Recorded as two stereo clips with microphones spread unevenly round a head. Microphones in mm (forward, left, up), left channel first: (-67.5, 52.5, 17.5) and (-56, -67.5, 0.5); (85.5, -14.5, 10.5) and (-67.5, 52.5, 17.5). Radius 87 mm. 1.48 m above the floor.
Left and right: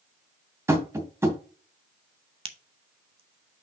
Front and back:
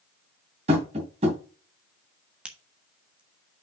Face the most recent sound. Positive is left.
turn(degrees=-125)